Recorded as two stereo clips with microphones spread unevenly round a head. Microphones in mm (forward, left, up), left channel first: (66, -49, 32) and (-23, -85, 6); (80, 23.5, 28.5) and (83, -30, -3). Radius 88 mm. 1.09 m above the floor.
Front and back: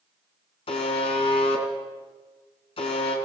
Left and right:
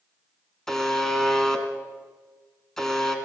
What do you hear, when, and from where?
0.7 s a buzzer: 20° left, 3.5 m